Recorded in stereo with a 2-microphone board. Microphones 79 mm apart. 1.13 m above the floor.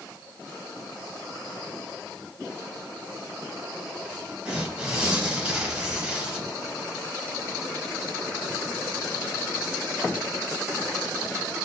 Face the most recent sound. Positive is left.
turn(degrees=-15)  # may be behind; listen again after turning